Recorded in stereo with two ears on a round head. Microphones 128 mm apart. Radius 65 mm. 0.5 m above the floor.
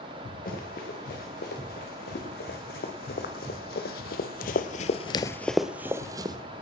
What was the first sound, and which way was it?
Running footsteps, 60° left (ahead or behind).